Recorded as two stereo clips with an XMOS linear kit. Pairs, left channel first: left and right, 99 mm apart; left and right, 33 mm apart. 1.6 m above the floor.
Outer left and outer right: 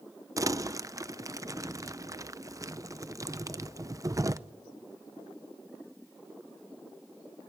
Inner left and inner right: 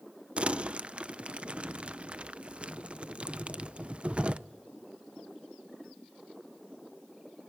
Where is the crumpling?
30° right (ahead or behind), 0.6 m.